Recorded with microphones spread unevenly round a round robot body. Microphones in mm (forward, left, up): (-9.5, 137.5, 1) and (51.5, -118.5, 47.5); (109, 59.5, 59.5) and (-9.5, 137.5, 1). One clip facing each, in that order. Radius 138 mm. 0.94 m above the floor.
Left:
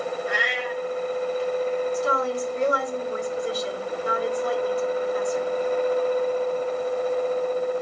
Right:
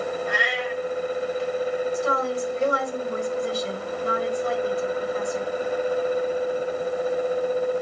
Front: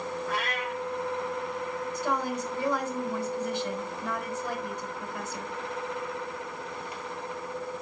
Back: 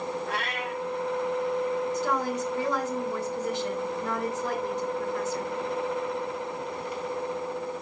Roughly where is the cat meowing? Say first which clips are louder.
Right 1 dB, even; behind right.